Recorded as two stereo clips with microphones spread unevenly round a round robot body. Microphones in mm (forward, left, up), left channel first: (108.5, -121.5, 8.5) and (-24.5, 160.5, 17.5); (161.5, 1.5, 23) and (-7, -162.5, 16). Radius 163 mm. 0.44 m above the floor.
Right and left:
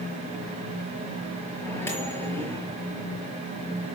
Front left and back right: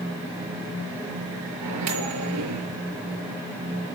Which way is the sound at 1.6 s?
150° right.